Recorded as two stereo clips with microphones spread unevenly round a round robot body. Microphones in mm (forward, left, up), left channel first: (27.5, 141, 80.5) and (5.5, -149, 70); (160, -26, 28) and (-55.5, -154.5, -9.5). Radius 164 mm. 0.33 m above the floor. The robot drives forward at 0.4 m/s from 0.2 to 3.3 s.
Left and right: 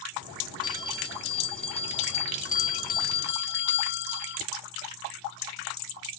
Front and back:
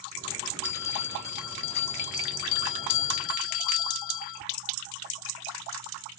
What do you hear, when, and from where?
0.6 s a bell: 10° left; by 4.4 s 35° left